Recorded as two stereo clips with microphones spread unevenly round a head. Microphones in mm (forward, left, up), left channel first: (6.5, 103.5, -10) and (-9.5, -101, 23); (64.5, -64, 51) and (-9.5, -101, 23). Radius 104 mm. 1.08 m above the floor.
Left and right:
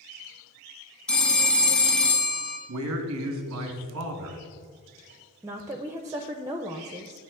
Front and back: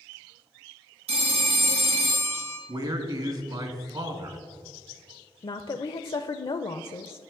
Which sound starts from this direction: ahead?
A woman speaking, at 5.4 s.